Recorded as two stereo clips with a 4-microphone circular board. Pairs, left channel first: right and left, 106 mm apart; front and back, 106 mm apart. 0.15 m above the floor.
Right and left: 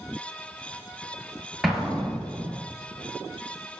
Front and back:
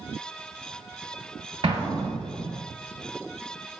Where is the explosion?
Straight behind, 0.8 m.